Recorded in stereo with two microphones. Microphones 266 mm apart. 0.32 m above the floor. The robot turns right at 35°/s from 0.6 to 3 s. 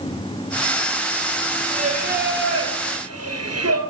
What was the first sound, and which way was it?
Singing, 160° right.